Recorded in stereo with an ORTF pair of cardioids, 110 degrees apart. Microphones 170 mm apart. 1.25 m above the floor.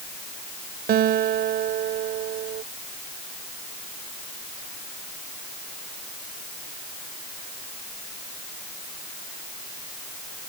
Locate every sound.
0.9 s a guitar: 65° right